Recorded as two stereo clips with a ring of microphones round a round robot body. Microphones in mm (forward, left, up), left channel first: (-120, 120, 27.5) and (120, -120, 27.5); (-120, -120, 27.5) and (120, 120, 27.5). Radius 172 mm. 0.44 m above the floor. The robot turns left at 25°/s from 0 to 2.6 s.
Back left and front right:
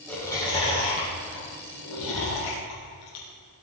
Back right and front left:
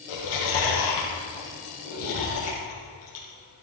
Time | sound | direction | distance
0.1 | chewing | 140° right | 8 m